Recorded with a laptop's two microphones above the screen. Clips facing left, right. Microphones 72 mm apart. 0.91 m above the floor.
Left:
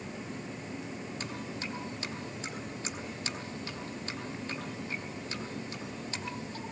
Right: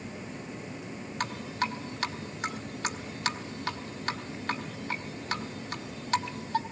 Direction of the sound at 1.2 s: 80° right.